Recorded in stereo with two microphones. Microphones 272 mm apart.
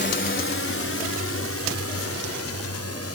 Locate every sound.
0.0 s a drone: 40° left (ahead or behind); by 3.1 s 60° left (ahead or behind)